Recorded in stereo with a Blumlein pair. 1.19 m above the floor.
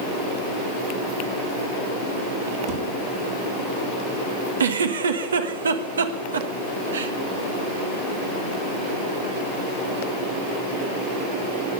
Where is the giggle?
70° right, 1.4 m.